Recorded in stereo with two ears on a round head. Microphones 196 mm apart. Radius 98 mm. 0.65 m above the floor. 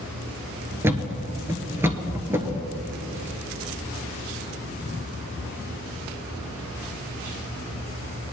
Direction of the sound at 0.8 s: 10° right (ahead or behind).